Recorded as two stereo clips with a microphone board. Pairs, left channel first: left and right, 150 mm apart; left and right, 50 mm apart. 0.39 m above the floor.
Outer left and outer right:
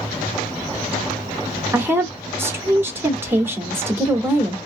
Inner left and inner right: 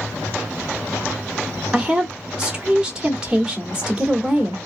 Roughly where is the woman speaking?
Centre.